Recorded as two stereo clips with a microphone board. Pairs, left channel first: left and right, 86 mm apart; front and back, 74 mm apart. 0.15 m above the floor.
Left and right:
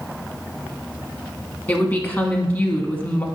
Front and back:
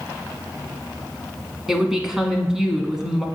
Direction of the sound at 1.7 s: 105° left.